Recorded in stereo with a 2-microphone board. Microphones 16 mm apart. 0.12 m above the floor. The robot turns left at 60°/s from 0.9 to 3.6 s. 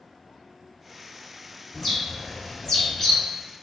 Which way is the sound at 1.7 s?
10° left (ahead or behind).